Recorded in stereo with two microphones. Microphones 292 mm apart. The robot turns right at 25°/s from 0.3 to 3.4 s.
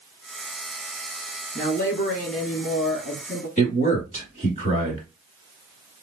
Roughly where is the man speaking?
Left.